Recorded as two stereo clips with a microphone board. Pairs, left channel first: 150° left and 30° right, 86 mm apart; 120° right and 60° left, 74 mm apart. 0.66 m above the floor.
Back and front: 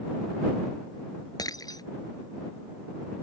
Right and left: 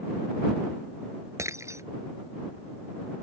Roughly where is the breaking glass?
Left.